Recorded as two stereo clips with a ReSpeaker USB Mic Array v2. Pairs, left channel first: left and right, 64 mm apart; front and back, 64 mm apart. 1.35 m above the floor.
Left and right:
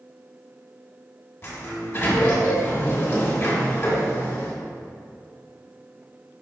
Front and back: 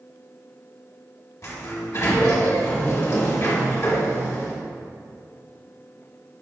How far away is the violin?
I don't hear a violin.